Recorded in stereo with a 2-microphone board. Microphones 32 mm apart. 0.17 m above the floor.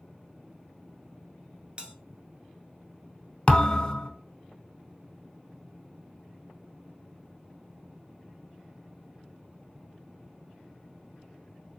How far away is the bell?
About 0.8 m.